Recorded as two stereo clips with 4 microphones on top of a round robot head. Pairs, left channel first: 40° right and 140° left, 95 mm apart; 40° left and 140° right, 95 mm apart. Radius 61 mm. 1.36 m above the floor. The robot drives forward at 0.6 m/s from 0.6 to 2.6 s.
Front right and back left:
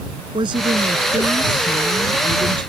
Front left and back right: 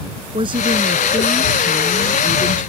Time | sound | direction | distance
0.3 | a woman speaking | straight behind | ?